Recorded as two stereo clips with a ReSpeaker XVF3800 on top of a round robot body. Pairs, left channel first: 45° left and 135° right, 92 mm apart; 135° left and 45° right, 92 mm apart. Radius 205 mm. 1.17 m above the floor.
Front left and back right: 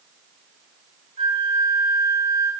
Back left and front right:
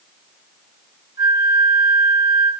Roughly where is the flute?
Right.